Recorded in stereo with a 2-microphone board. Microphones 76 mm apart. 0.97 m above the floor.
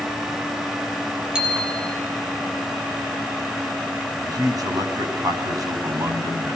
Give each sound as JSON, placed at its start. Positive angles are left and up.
{"t": 1.4, "sound": "a bicycle bell", "side_deg": -15, "distance_m": 8.5}
{"t": 4.2, "sound": "a man speaking", "side_deg": -60, "distance_m": 6.0}